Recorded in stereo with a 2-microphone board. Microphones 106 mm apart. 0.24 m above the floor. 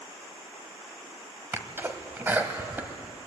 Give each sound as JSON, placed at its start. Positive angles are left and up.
{"t": 1.5, "sound": "a sneeze", "side_deg": -20, "distance_m": 1.4}